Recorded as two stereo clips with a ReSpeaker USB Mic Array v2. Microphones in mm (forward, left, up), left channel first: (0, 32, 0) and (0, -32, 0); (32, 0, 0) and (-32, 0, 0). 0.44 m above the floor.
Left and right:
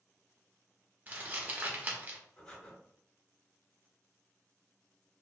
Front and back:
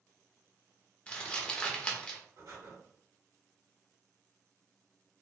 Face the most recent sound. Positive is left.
turn(degrees=170)